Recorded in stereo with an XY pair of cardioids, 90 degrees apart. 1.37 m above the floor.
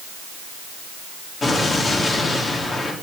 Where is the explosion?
45° left, 3.5 m.